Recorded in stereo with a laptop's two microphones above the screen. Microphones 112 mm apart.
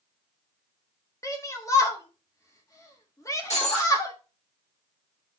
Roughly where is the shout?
Left.